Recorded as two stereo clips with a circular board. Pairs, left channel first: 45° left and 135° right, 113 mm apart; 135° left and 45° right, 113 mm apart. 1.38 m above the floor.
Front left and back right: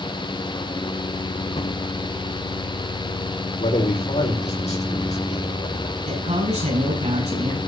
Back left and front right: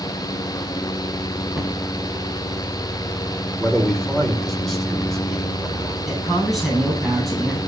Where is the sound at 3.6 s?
45° left, 5 m.